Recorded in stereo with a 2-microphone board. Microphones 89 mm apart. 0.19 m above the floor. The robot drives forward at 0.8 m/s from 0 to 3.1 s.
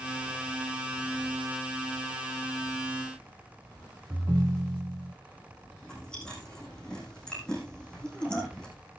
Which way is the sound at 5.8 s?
10° left (ahead or behind).